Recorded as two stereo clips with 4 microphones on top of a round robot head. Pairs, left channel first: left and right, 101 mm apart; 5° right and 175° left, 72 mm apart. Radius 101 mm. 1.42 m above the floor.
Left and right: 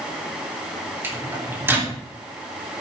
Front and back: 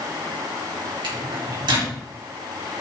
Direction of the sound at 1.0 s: 160° right.